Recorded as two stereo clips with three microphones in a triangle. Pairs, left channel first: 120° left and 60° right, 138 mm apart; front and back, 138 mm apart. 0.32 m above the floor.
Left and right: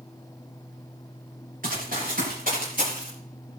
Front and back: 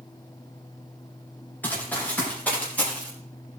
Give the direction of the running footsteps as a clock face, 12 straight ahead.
3 o'clock.